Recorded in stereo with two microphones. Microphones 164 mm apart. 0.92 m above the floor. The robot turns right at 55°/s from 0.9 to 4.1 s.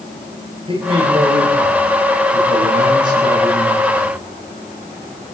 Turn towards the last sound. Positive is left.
turn(degrees=30)